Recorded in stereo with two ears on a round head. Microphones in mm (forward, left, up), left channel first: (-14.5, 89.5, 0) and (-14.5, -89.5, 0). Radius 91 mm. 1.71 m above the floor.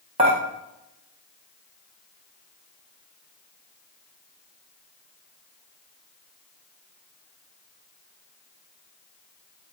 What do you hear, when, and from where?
0.2 s dishes clattering: 30° right (ahead or behind), 1.1 m